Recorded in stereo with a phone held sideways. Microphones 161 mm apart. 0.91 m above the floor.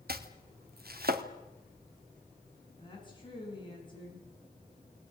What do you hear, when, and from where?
0.1 s chopping: 75° right (ahead or behind), 1.8 m
2.8 s a woman speaking: 30° left (ahead or behind), 9.5 m